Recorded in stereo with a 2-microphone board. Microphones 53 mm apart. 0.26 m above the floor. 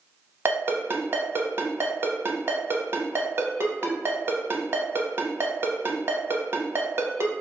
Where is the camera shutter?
I don't hear a camera shutter.